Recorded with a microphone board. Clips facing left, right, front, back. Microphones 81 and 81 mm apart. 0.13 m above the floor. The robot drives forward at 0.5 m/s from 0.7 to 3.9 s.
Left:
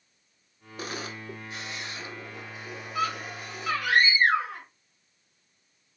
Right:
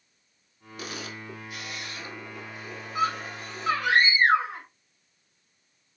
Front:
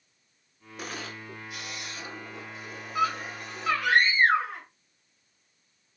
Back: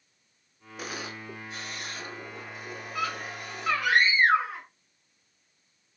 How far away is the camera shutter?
About 0.6 m.